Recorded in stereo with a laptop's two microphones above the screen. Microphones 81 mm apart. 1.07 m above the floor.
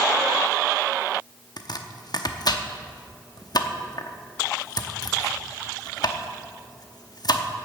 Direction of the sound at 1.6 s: 60° left (ahead or behind).